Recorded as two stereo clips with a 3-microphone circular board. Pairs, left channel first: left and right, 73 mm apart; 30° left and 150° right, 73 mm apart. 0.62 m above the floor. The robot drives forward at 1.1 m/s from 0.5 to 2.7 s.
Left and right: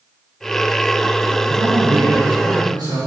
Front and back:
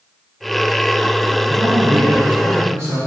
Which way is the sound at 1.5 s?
80° right.